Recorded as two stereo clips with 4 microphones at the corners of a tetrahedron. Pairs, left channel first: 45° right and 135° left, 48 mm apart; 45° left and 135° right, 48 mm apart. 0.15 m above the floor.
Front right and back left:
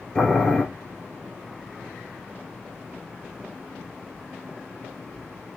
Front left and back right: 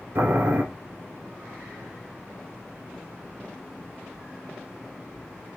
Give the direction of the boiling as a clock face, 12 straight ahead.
4 o'clock.